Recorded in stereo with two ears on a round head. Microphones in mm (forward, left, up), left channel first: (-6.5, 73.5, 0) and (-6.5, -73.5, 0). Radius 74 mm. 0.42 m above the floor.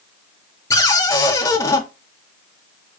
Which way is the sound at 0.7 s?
20° left (ahead or behind).